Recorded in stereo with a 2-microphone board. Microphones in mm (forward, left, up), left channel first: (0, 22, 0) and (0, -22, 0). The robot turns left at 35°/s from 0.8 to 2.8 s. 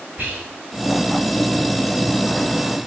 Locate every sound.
0.2 s whispering: 45° right (ahead or behind), 1.7 m